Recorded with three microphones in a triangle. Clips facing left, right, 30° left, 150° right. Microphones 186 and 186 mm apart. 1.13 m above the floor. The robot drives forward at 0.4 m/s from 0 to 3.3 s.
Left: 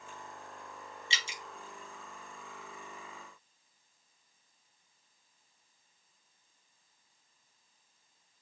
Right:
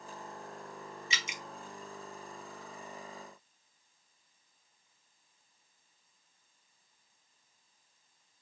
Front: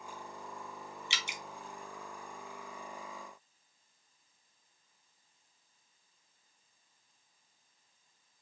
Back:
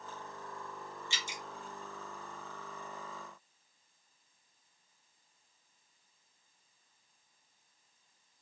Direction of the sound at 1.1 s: 30° left.